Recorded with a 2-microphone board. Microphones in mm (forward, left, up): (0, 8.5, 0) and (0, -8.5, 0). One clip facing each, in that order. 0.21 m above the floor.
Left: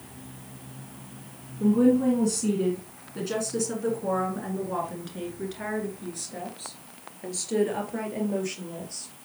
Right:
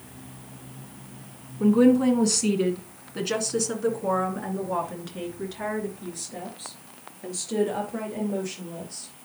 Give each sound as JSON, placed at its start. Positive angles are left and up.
{"t": 1.6, "sound": "a woman speaking", "side_deg": -45, "distance_m": 2.0}